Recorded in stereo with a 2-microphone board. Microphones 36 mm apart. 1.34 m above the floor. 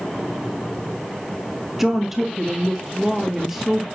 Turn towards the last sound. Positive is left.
turn(degrees=-10)  # may be behind; listen again after turning